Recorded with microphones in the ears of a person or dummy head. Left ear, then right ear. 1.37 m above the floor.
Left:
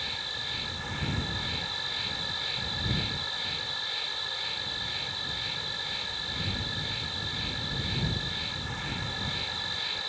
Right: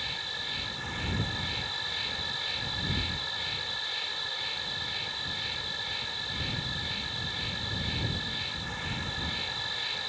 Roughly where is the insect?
Centre.